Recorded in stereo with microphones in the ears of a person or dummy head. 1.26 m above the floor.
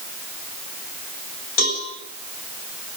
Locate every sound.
1.6 s a cowbell: 85° left, 10 m